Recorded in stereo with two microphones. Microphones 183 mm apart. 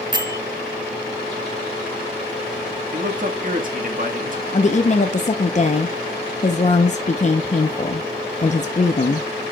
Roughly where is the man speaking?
Right.